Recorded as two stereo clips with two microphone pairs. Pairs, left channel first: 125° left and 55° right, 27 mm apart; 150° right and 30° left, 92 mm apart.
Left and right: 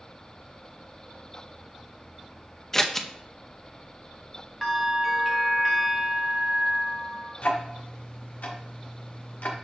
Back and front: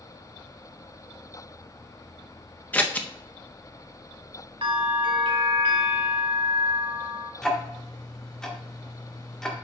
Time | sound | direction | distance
2.7 | scissors | 175° left | 0.6 m
4.6 | a bell | 30° left | 1.5 m
7.4 | ticking | 130° left | 1.3 m